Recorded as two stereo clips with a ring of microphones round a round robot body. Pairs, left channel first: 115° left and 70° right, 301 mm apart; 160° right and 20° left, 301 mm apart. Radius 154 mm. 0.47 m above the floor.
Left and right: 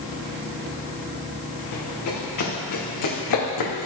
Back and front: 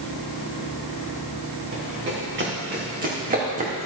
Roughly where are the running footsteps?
Left.